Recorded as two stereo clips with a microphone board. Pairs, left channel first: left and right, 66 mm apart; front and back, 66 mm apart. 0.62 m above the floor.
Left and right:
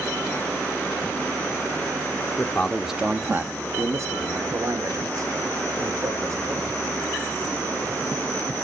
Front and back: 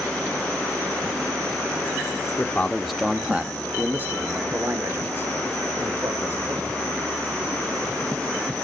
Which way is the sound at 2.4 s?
40° left.